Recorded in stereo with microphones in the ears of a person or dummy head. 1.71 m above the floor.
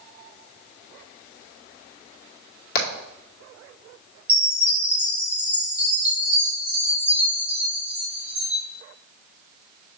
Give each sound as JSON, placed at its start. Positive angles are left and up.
{"t": 2.8, "sound": "hammering", "side_deg": 55, "distance_m": 1.9}
{"t": 4.3, "sound": "a chime", "side_deg": -10, "distance_m": 1.6}